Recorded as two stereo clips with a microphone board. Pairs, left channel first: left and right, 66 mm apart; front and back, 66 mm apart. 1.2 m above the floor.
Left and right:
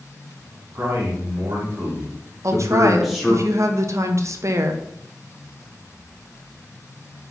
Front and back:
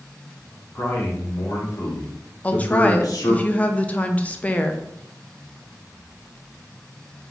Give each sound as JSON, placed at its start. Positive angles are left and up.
{"t": 0.8, "sound": "a man speaking", "azimuth_deg": -55, "distance_m": 1.9}
{"t": 2.4, "sound": "a woman speaking", "azimuth_deg": -65, "distance_m": 0.5}